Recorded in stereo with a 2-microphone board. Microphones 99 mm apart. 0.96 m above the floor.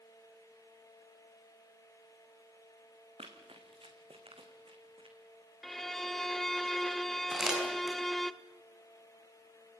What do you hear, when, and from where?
3.2 s running footsteps: 75° right (ahead or behind), 4 m; by 5.2 s 65° right (ahead or behind), 3 m
5.6 s a violin: centre (ahead or behind), 0.7 m
7.3 s crumpling: 5° right (ahead or behind), 7 m